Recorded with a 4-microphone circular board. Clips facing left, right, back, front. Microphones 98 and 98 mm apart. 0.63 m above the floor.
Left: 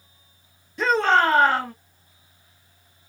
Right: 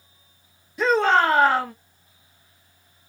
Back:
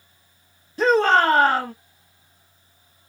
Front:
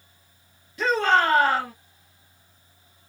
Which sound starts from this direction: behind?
A shout, at 0.8 s.